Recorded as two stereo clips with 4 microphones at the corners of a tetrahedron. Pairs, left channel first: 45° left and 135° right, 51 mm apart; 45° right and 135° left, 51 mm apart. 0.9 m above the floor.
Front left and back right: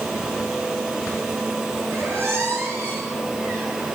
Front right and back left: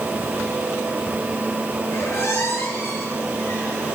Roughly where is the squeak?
Right.